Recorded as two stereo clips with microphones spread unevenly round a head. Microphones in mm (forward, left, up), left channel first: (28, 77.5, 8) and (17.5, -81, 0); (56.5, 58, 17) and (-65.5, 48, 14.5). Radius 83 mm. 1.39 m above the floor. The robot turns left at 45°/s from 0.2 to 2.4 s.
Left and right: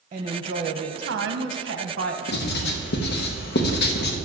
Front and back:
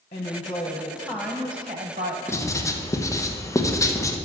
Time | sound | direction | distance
0.1 | a woman speaking | 50° right | 0.8 m
2.3 | writing | 75° left | 0.9 m